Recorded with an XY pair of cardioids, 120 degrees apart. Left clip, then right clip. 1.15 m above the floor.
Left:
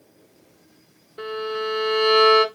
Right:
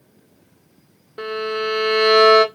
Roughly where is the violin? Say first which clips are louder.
Right 3 dB; ahead right.